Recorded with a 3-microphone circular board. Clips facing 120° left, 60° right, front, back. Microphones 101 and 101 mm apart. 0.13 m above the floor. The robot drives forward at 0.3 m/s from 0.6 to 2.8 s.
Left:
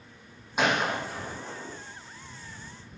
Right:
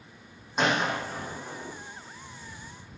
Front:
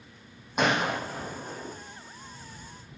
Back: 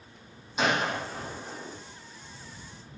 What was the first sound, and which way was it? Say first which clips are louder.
A gunshot: even, front 1 dB; 40° left.